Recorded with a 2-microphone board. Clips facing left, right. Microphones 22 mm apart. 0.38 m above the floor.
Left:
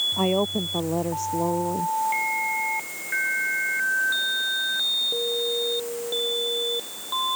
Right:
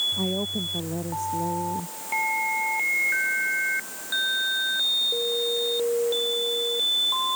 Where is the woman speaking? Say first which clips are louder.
Left 4 dB; 45° left (ahead or behind).